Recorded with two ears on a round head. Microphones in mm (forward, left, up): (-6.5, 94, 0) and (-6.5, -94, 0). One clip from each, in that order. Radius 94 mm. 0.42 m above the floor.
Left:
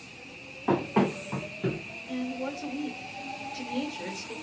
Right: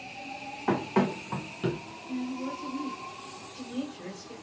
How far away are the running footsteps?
About 1.9 m.